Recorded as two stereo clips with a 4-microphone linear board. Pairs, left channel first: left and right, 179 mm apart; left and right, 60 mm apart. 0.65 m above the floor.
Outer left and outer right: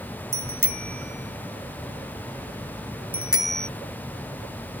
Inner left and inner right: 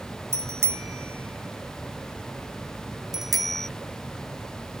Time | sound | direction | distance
0.3 | a bicycle bell | 60° right (ahead or behind) | ?